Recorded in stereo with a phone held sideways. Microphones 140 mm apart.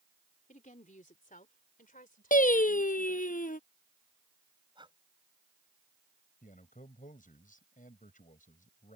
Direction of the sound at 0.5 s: 65° left (ahead or behind).